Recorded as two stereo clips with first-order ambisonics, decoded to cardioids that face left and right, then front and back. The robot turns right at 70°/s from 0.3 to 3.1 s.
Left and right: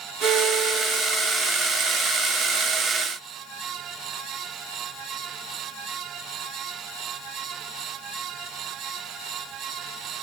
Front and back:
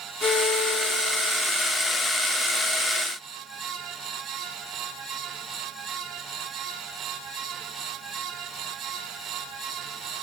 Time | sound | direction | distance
0.2 | a violin | 50° right | 4 m